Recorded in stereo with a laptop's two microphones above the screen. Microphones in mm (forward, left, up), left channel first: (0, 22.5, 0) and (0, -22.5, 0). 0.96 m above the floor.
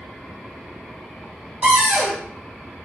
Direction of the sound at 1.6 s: 35° right (ahead or behind).